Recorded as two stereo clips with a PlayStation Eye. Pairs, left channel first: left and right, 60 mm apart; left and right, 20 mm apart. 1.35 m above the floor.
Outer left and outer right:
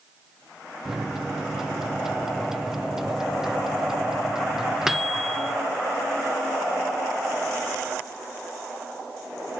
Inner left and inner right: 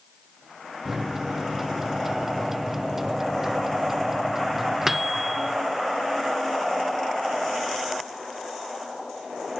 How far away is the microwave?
About 0.6 m.